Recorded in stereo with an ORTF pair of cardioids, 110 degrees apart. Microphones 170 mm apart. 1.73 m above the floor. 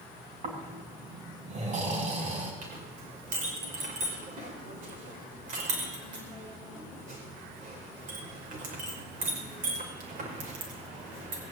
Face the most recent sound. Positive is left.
turn(degrees=-50)